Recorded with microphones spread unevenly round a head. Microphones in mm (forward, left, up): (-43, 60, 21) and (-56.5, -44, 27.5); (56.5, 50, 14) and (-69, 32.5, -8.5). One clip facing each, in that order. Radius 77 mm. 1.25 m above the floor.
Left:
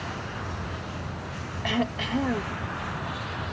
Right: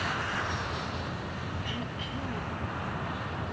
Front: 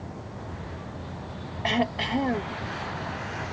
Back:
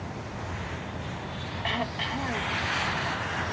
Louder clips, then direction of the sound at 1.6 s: Left 9 dB, front 6 dB; 55° left.